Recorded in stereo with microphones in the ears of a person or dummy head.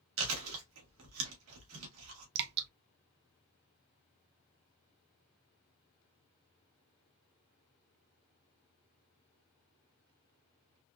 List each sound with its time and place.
0.2 s chewing: 80° right, 1.6 m
2.4 s dripping: 60° right (ahead or behind), 0.6 m